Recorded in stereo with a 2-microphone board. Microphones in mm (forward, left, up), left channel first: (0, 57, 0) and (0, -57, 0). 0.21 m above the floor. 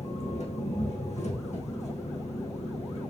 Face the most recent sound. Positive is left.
turn(degrees=85)